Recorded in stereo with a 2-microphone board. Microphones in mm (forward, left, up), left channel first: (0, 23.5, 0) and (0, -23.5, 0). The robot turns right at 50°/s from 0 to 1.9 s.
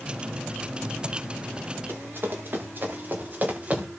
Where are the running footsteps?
55° right (ahead or behind), 6.5 m; by 3.9 s 30° right (ahead or behind), 4.5 m.